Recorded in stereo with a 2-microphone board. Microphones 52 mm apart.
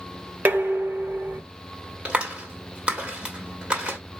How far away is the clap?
About 1.5 m.